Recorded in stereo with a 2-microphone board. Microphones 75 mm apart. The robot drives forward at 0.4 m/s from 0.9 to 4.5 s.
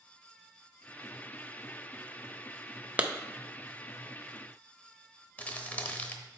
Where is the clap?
20° right (ahead or behind), 0.5 m.